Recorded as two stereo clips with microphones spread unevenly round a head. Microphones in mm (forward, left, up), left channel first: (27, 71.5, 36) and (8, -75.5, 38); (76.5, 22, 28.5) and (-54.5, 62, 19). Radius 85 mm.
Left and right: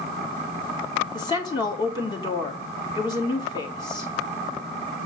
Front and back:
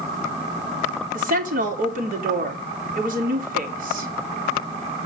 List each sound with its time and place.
1.1 s a woman speaking: 145° left, 3 m